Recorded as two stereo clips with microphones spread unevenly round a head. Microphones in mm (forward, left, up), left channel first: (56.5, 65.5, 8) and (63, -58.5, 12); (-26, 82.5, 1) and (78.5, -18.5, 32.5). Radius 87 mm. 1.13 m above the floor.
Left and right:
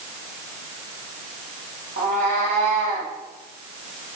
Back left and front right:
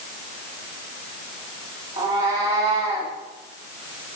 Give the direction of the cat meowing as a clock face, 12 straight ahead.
3 o'clock.